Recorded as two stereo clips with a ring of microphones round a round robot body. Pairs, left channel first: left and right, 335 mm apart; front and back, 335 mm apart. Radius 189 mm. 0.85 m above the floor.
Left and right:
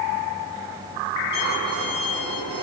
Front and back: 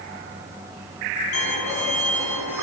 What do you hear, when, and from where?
1.3 s a violin: 15° left, 2.5 m